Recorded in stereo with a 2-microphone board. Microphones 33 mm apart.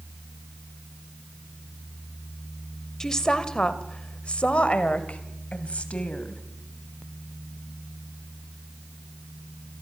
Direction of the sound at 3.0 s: 15° left (ahead or behind).